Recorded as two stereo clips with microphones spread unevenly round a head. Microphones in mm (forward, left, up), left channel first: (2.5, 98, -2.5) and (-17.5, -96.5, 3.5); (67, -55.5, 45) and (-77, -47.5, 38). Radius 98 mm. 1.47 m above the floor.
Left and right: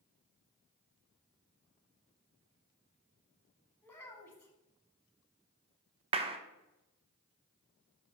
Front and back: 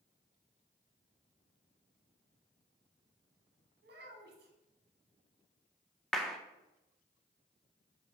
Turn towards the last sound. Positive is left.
turn(degrees=-85)